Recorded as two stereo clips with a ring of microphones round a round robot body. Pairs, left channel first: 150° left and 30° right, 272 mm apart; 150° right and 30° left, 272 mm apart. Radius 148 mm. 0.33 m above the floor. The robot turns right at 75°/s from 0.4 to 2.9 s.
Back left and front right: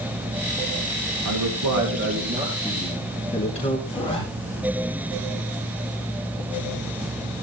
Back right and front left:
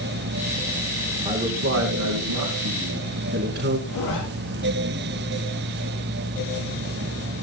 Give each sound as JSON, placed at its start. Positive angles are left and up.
{"t": 1.2, "sound": "a man speaking", "azimuth_deg": -40, "distance_m": 4.0}
{"t": 3.9, "sound": "a zipper", "azimuth_deg": -140, "distance_m": 6.0}